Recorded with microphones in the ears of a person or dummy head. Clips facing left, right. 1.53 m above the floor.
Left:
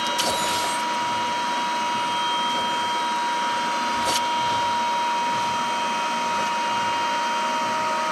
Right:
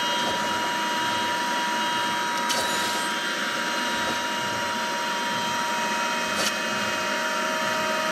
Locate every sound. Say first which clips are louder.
0.0 s a machine running: left 2 dB; 15° right (ahead or behind), 1.4 m